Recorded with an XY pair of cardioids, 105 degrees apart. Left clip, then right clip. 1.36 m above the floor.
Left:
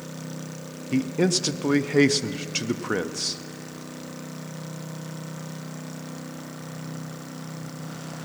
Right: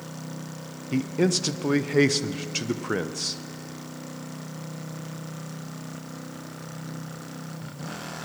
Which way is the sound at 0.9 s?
5° left.